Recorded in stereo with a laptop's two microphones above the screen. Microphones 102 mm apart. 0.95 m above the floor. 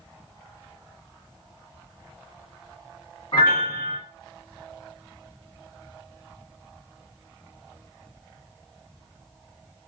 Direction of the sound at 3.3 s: 45° left (ahead or behind).